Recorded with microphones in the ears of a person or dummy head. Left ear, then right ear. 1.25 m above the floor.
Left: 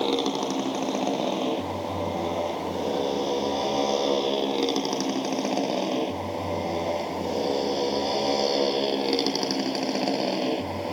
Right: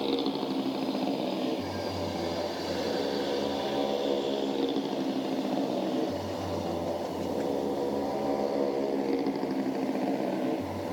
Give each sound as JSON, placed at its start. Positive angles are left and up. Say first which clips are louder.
{"t": 0.0, "sound": "a motorcycle", "louder": "left 5 dB", "side_deg": 45}